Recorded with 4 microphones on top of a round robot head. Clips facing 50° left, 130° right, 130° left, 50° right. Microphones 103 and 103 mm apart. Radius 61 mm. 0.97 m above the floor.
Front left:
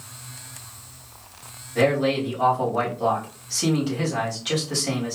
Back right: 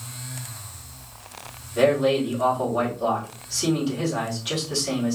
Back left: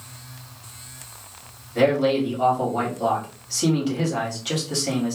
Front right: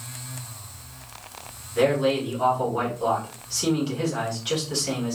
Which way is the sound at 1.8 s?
90° left.